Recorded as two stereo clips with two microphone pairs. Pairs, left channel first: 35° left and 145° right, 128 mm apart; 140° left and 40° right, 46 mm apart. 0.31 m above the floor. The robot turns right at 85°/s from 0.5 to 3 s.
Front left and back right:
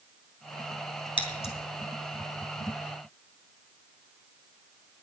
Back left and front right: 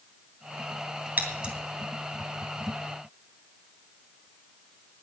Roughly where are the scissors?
Ahead.